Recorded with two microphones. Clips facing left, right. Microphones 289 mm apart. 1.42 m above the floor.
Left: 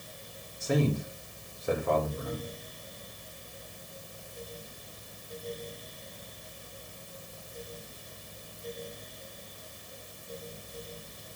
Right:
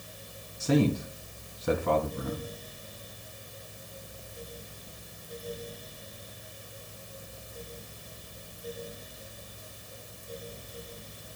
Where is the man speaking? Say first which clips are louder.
Right 4 dB; 80° right, 3 m.